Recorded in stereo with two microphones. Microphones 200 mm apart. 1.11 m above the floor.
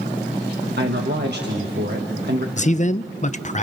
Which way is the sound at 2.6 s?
35° left (ahead or behind).